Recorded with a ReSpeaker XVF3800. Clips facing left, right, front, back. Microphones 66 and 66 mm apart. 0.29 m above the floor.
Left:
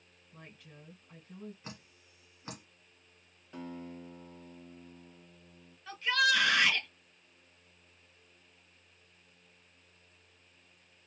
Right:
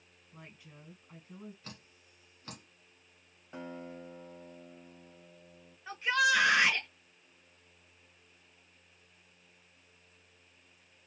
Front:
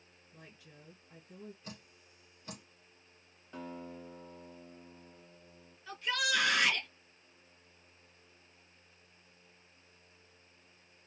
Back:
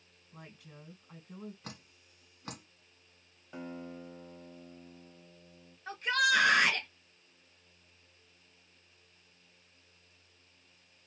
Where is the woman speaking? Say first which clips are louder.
Even, back 4 dB; 170° right, 2 m.